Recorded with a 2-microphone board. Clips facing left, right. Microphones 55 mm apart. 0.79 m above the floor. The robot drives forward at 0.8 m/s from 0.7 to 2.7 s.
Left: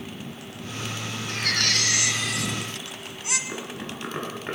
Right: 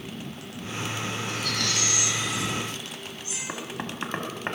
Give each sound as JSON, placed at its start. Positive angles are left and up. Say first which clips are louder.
{"t": 1.3, "sound": "a baby crying", "louder": "left 6 dB", "side_deg": 55, "distance_m": 3.0}
{"t": 3.5, "sound": "knocking", "louder": "even", "side_deg": -40, "distance_m": 5.0}